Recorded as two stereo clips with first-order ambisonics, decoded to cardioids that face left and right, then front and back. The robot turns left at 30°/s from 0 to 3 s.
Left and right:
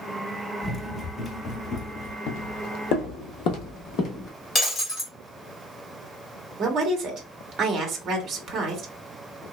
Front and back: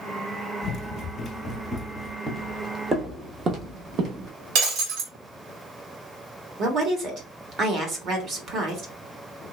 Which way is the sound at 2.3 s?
100° left.